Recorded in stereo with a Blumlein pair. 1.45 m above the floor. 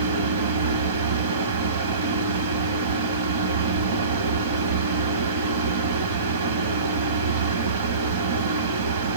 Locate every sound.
0.0 s a fan: 60° right, 1.3 m